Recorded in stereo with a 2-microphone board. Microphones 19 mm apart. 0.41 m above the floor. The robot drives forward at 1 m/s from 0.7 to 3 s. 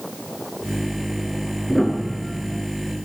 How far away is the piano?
About 5.5 m.